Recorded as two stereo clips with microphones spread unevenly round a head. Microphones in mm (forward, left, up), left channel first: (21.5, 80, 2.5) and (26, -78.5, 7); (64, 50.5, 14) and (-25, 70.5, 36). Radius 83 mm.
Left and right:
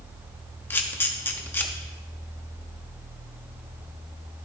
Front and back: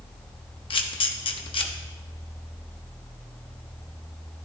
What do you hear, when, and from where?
0.7 s a camera shutter: 15° left, 1.0 m